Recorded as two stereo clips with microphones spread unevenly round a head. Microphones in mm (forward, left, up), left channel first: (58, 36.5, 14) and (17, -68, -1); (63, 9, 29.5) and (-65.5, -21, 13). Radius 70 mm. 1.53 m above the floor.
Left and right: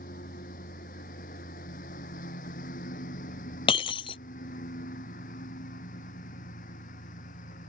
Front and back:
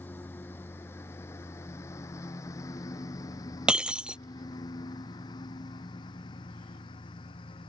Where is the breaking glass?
105° left.